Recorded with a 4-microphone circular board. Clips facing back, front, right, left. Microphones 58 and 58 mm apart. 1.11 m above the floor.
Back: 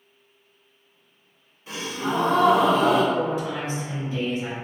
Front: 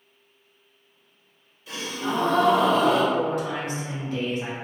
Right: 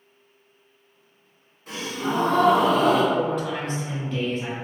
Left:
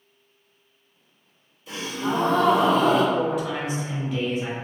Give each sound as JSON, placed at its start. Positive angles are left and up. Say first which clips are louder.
{"t": 1.7, "sound": "a gasp", "louder": "back 1 dB, even", "azimuth_deg": -125, "distance_m": 1.1}
{"t": 3.1, "sound": "a man speaking", "louder": "even, even", "azimuth_deg": 5, "distance_m": 0.9}